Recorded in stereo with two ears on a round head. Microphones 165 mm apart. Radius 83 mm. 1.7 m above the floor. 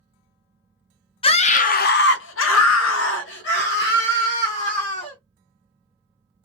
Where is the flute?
I don't hear a flute.